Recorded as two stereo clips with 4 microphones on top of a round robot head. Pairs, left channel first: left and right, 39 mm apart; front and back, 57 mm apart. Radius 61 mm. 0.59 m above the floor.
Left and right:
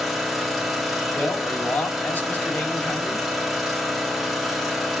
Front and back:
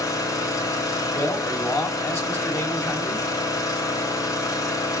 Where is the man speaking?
45° left, 3 m.